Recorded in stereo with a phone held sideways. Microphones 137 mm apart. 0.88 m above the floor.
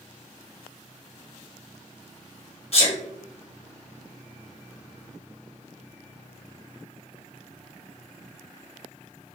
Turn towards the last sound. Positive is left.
turn(degrees=50)  # may be behind; listen again after turning